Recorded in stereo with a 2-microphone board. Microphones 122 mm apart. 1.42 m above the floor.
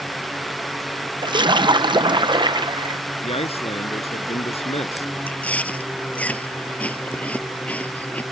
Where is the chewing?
10° left (ahead or behind).